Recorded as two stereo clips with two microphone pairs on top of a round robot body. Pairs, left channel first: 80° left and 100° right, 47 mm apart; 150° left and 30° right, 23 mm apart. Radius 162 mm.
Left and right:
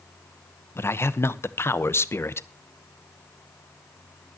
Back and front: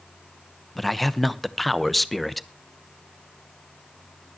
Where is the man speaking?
70° left, 1.1 m.